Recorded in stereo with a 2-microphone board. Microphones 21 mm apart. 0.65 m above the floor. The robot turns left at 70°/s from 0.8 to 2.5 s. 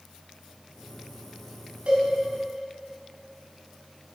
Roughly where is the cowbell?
Right.